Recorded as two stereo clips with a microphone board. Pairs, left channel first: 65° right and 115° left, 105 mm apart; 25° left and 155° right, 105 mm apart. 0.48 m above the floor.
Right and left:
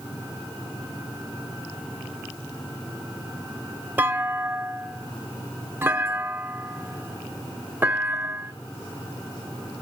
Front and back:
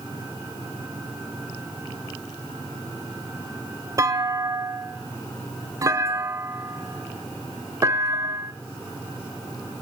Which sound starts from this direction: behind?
A clunk, at 4.0 s.